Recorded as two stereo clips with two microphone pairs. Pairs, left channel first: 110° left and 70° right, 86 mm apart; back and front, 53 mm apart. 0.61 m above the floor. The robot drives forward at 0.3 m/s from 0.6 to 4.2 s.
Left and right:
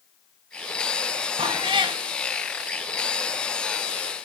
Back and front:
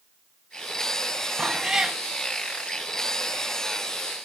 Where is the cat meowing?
75° right, 1.0 m; by 2.0 s 85° right, 1.0 m.